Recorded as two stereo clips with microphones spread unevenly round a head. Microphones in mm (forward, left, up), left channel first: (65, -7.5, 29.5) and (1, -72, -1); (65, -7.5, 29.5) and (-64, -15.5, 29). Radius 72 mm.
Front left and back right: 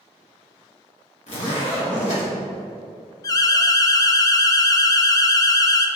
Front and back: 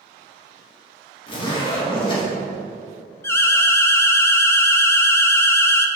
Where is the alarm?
30° left, 0.7 m.